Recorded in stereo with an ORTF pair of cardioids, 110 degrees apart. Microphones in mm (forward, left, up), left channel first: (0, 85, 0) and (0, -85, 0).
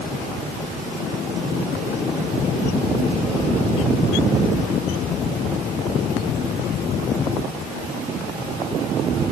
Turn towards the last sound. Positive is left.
No sound to turn to.